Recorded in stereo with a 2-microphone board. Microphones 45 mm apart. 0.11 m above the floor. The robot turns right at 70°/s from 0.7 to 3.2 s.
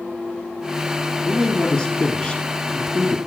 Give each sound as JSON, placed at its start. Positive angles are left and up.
{"t": 1.2, "sound": "a man speaking", "side_deg": 5, "distance_m": 1.4}